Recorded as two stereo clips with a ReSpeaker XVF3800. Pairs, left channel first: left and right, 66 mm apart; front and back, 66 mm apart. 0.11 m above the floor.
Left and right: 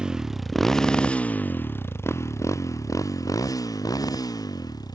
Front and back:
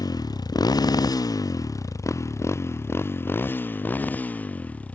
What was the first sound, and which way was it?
A motorcycle, 15° right.